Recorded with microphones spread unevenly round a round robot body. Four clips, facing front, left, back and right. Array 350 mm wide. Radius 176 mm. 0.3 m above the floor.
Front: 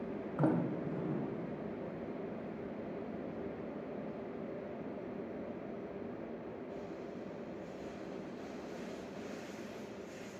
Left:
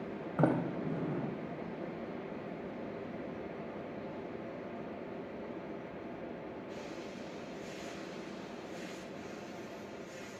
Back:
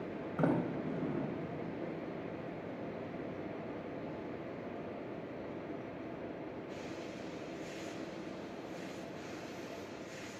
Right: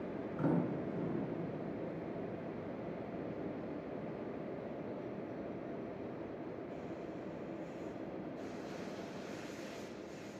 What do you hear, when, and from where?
0.4 s a sliding door: 105° left, 0.6 m